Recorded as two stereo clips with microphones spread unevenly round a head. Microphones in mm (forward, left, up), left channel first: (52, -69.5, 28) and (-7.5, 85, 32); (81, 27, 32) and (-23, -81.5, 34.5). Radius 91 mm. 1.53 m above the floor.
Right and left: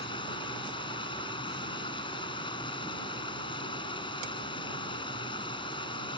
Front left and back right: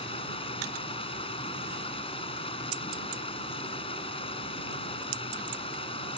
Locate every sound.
0.0 s running water: 5° right